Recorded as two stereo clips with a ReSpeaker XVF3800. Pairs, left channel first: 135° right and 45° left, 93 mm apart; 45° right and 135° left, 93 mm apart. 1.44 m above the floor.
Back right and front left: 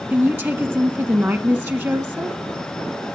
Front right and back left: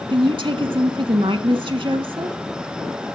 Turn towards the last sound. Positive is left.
turn(degrees=110)